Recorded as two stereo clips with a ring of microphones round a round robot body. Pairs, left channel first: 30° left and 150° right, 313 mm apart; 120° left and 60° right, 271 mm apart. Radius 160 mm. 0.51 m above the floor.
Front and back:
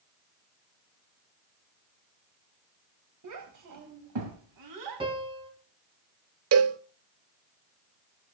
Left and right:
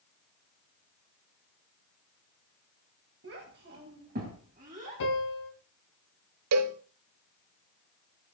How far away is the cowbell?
About 0.8 m.